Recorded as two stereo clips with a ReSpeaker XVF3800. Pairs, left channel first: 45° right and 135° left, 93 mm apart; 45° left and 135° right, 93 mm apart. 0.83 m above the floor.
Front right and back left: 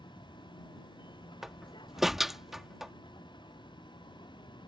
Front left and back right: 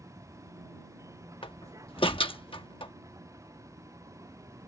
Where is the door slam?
50° left.